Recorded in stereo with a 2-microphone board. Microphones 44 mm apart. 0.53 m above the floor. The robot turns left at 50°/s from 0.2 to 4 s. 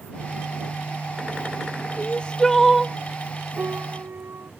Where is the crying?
40° left; by 3.0 s 5° right.